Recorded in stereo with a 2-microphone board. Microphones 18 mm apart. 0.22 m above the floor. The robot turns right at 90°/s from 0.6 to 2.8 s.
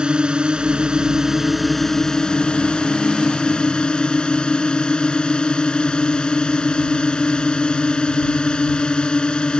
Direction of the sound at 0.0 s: 100° right.